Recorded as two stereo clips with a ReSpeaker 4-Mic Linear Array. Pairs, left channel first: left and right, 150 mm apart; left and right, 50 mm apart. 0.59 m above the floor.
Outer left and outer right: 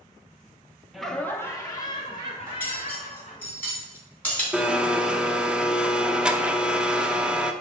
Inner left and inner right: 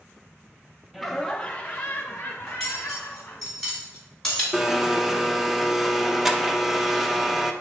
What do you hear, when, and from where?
0.9 s laughter: centre (ahead or behind), 0.6 m; by 3.5 s 45° left (ahead or behind), 1.5 m
2.5 s cutlery clinking: 10° left (ahead or behind), 3 m
4.5 s a blender: 5° right (ahead or behind), 0.5 m